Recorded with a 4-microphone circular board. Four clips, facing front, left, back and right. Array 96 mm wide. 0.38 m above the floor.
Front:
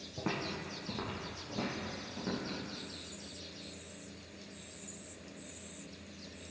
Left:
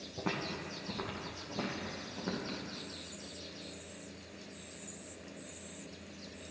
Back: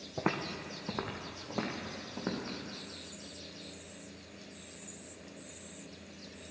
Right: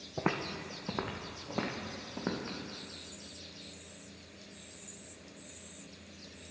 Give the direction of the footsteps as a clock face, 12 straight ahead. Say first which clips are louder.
Right 4 dB, back 3 dB; 4 o'clock.